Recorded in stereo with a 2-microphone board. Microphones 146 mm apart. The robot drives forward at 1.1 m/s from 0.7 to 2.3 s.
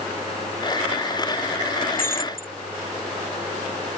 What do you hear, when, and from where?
1.9 s breaking glass: 85° left; by 2.5 s 80° left